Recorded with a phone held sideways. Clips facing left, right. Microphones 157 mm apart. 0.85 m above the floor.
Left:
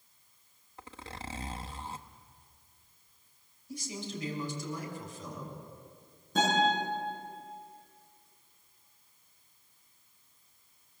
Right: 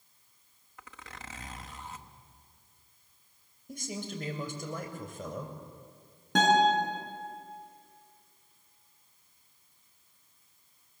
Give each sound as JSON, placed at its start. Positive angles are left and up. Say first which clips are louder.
{"t": 0.8, "sound": "a zipper", "louder": "left 4 dB", "side_deg": 30, "distance_m": 0.9}
{"t": 3.7, "sound": "a man speaking", "louder": "right 1 dB", "side_deg": -55, "distance_m": 3.5}
{"t": 6.3, "sound": "a guitar", "louder": "right 4 dB", "side_deg": -85, "distance_m": 9.0}